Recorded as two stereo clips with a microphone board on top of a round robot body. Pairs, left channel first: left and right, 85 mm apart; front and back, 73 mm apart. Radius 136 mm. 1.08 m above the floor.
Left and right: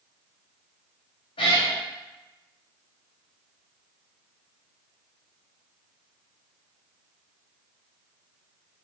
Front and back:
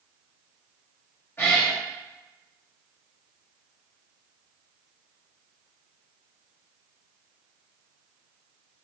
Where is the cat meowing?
65° left, 1.7 m.